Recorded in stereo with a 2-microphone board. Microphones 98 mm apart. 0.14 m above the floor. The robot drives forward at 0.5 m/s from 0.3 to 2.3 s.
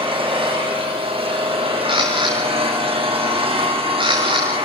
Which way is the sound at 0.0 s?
70° right (ahead or behind).